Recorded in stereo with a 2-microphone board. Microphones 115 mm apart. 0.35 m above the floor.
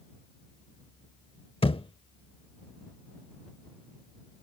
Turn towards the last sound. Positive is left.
turn(degrees=50)  # may be behind; listen again after turning